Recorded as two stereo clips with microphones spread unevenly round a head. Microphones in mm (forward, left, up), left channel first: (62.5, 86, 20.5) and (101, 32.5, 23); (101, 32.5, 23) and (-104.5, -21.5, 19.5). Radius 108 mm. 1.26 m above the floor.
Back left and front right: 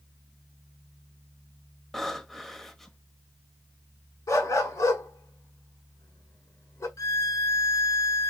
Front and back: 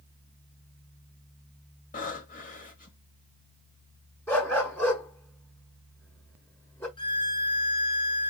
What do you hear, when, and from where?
1.9 s breathing: 40° left, 1.2 m
4.3 s a dog barking: 95° left, 1.5 m
7.0 s a violin: 85° left, 1.0 m